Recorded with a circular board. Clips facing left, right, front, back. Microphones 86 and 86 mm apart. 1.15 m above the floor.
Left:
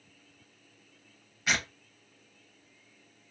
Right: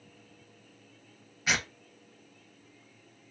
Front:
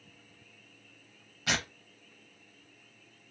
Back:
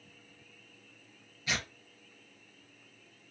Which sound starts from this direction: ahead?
Tearing paper, at 1.5 s.